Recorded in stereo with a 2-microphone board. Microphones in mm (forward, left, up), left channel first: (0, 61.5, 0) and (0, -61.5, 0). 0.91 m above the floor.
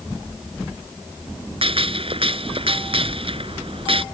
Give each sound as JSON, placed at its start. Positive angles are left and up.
{"t": 1.6, "sound": "a gunshot", "side_deg": -50}